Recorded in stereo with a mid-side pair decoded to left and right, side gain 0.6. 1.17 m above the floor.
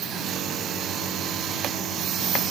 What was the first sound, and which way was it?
Only background noise.